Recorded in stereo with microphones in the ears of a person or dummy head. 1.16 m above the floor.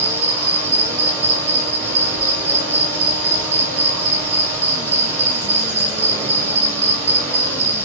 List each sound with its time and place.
0.0 s an insect: 15° right (ahead or behind), 1.9 m